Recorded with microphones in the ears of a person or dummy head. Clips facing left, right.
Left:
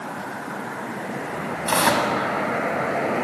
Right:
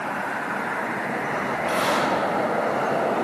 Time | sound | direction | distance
1.7 | tearing paper | 85° left | 6 m